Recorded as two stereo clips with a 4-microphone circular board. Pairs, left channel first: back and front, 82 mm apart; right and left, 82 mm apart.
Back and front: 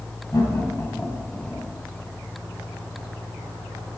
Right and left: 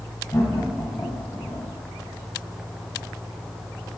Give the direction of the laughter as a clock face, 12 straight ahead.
4 o'clock.